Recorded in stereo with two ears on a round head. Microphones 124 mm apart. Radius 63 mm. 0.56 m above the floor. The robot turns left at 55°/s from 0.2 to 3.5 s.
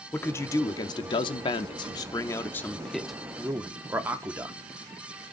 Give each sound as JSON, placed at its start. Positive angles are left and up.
{"t": 0.1, "sound": "a man speaking", "azimuth_deg": 155, "distance_m": 0.8}